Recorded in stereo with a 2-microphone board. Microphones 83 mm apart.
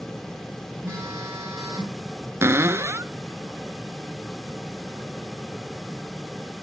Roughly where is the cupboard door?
Right.